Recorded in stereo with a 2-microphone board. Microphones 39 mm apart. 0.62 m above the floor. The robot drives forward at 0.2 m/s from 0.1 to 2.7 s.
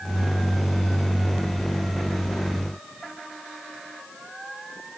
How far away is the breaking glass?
No breaking glass in this recording.